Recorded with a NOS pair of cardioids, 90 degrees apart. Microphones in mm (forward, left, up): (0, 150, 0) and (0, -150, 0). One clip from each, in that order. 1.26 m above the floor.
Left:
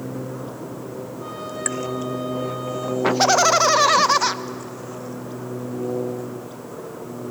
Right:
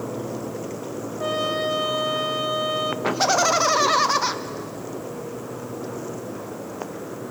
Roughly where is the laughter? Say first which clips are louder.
Left 4 dB; ahead.